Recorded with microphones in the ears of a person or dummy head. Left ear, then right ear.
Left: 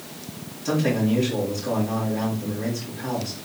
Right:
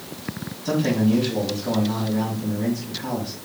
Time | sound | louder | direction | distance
0.7 | a man speaking | right 1 dB | 5° right (ahead or behind) | 3 m